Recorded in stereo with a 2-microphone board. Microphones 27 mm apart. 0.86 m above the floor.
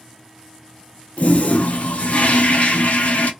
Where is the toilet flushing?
65° left (ahead or behind), 0.6 m.